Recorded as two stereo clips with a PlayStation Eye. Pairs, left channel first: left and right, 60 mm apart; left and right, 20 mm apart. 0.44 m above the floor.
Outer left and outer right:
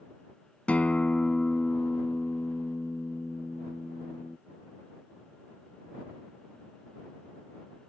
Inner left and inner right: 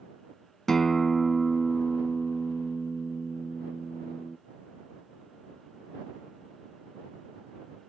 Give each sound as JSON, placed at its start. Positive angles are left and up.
{"t": 0.7, "sound": "a guitar", "side_deg": 25}